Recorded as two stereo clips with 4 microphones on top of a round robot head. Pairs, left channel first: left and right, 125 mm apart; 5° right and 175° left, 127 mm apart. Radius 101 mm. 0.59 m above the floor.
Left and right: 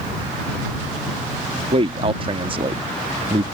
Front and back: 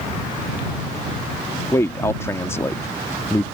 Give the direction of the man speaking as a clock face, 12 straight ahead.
2 o'clock.